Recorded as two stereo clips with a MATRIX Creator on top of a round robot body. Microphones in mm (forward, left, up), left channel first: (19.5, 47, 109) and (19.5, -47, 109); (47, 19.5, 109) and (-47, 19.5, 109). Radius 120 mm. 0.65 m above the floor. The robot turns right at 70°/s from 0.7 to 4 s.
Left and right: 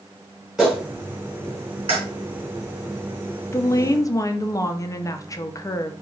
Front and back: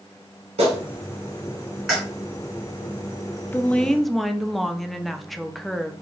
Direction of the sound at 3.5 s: 55° left.